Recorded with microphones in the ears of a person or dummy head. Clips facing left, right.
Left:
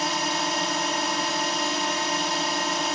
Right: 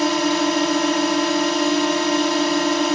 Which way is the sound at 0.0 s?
55° right (ahead or behind).